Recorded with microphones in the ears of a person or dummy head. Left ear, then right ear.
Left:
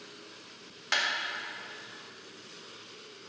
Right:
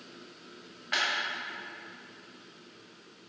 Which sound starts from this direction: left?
A clap, at 0.9 s.